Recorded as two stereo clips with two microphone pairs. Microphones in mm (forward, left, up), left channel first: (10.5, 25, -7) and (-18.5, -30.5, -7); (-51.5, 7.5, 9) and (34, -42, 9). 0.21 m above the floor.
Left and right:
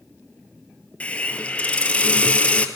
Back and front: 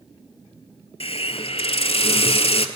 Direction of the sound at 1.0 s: 135° left.